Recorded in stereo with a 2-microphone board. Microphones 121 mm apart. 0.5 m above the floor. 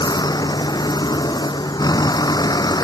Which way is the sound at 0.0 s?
35° left (ahead or behind).